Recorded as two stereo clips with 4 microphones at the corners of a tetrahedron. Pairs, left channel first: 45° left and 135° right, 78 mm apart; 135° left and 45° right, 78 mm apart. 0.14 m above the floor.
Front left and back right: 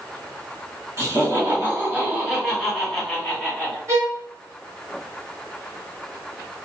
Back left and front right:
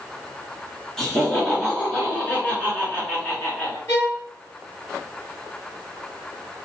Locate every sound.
1.0 s laughter: 150° right, 2.0 m; by 3.8 s 95° left, 1.8 m
3.9 s a violin: 175° left, 2.0 m